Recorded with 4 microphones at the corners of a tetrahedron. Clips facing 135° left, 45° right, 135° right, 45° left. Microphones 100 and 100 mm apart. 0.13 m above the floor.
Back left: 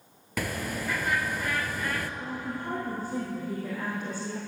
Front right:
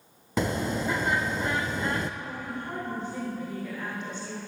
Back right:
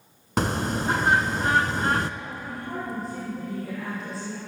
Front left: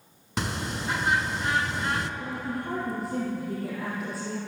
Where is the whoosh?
No whoosh in this recording.